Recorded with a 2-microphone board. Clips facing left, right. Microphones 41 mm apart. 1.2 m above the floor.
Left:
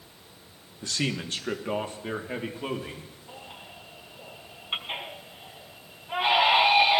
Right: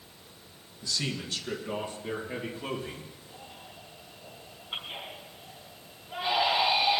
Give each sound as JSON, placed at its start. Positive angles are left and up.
{"t": 0.8, "sound": "a man speaking", "side_deg": 50, "distance_m": 1.2}
{"t": 3.3, "sound": "a baby crying", "side_deg": 70, "distance_m": 4.0}